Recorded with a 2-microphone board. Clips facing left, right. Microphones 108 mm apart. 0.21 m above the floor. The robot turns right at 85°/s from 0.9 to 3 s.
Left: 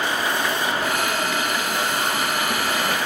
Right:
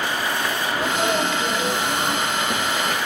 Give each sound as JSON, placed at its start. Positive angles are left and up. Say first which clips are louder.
{"t": 0.7, "sound": "a sneeze", "louder": "right 2 dB", "azimuth_deg": -165, "distance_m": 7.5}